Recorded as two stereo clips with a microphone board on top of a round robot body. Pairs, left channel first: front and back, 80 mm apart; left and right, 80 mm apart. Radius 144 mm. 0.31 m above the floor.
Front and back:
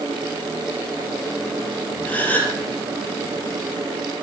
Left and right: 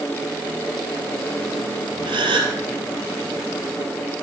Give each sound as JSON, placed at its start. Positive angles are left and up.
{"t": 2.0, "sound": "a gasp", "azimuth_deg": -70, "distance_m": 3.0}